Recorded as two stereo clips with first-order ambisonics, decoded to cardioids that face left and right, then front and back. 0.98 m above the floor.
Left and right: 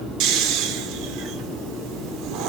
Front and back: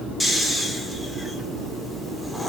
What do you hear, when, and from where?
0.2 s snoring: 90° right, 0.6 m